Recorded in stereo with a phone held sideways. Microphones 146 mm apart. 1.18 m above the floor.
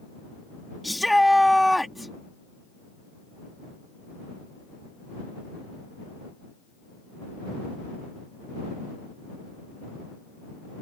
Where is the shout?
Centre (ahead or behind).